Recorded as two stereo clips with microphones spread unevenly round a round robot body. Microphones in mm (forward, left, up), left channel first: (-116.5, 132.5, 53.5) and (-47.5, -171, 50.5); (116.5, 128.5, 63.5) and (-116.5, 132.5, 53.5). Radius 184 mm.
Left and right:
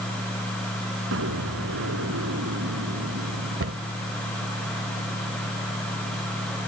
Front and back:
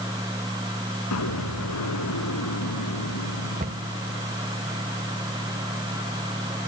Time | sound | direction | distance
1.1 | an explosion | 20° right | ?
3.6 | a cupboard door | 125° right | ?